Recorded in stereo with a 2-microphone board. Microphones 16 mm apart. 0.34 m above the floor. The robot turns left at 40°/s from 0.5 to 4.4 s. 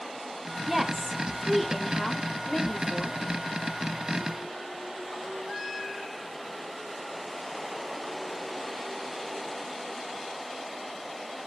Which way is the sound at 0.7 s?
15° right (ahead or behind).